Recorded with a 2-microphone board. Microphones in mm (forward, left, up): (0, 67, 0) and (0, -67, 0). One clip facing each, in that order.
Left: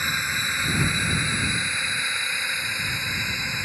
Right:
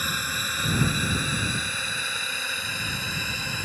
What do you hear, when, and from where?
0.0 s a drone: 15° right (ahead or behind); by 3.6 s 10° right (ahead or behind)